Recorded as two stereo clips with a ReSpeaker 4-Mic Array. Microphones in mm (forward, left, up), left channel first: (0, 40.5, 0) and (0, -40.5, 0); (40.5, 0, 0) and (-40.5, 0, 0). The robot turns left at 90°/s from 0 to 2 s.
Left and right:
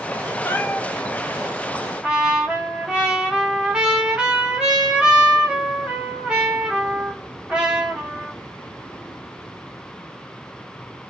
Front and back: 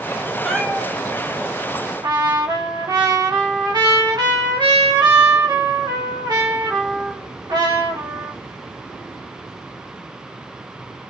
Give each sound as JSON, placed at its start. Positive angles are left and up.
{"t": 0.5, "sound": "a cat meowing", "azimuth_deg": 80, "distance_m": 1.2}
{"t": 2.0, "sound": "a trumpet", "azimuth_deg": -165, "distance_m": 2.5}